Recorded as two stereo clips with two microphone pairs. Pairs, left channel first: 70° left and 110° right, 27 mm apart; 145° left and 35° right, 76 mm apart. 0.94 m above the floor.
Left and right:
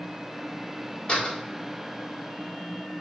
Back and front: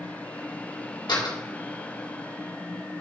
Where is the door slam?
125° left, 2 m.